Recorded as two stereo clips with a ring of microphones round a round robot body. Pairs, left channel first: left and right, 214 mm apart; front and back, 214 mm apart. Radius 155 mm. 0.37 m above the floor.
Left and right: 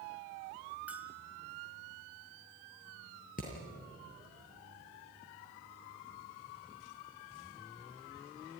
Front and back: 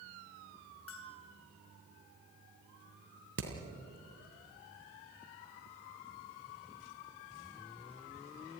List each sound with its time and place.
0.9 s a bell: 5° right, 2.5 m
3.4 s hammering: 155° left, 4 m